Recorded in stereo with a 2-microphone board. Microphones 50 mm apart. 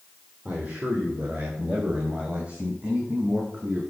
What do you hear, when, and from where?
0.5 s a man speaking: 30° right (ahead or behind), 4 m